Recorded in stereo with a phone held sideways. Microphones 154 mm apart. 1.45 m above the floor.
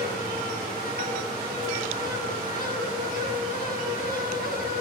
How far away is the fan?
About 8.5 m.